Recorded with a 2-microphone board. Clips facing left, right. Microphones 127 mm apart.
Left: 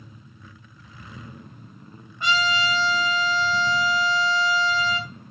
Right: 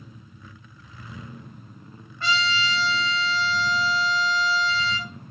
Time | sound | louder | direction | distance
2.2 | a trumpet | left 2 dB | 15° left (ahead or behind) | 3.5 m